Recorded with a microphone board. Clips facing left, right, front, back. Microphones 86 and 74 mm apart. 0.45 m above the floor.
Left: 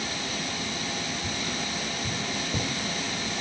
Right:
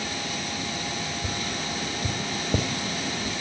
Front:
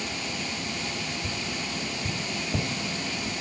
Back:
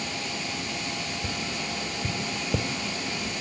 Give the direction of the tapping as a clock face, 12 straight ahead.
4 o'clock.